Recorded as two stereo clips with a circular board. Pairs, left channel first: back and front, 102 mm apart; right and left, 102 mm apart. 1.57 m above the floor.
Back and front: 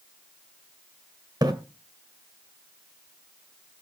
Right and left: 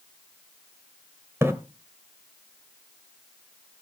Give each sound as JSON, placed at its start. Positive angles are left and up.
{"t": 1.4, "sound": "a splash", "azimuth_deg": 30, "distance_m": 1.9}